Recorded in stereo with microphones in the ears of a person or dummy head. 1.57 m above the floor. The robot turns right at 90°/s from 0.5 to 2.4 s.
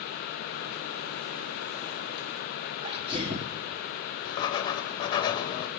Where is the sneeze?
25° right (ahead or behind), 1.0 m.